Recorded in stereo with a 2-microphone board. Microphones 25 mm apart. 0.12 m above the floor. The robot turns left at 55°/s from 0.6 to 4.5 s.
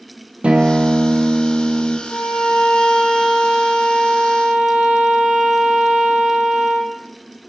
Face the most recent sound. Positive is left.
turn(degrees=-40)